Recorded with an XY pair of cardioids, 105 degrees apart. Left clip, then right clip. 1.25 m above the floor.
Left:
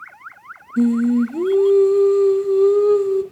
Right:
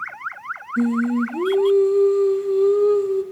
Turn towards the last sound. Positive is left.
turn(degrees=20)